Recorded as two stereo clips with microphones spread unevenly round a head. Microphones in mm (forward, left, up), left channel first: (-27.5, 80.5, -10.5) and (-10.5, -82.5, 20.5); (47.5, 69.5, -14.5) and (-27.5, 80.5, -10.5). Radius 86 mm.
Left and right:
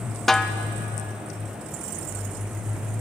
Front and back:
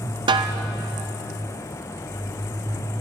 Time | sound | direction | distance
0.3 | a snare drum | 175° right | 0.8 m